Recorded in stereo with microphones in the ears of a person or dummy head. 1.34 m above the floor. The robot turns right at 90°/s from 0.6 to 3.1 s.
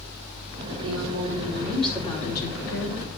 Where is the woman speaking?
85° right, 4.5 m; by 3.0 s 115° left, 4.5 m.